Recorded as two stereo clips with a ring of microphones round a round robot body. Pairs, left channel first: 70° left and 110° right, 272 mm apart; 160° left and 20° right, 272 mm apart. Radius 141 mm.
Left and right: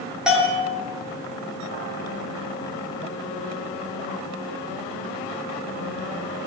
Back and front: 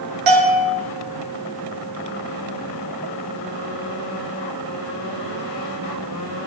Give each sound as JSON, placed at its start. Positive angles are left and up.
{"t": 0.3, "sound": "a bell", "azimuth_deg": -25, "distance_m": 5.5}